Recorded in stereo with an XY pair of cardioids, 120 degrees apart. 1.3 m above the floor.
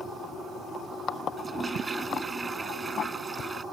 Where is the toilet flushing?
20° right.